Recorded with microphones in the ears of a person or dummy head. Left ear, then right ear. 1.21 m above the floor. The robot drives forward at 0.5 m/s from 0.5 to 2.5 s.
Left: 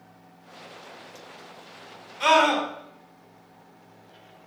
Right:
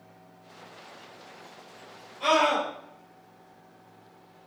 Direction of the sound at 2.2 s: 60° left (ahead or behind).